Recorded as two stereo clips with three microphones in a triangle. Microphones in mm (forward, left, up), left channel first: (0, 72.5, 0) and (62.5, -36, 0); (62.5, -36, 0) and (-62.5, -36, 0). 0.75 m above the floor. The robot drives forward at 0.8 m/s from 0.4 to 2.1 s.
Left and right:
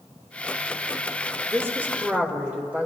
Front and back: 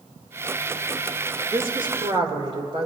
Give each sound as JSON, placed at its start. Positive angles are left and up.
{"t": 1.5, "sound": "a woman speaking", "azimuth_deg": -125, "distance_m": 1.9}